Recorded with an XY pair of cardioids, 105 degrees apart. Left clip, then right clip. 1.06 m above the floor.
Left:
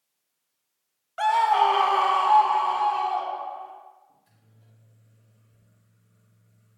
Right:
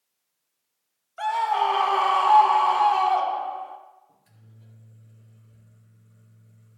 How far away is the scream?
About 0.9 m.